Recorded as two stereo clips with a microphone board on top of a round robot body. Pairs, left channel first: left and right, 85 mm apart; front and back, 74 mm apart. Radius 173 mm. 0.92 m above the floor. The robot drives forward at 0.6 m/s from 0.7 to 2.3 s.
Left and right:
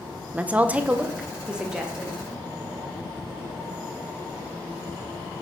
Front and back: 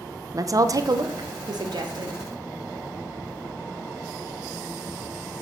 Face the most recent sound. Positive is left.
turn(degrees=-175)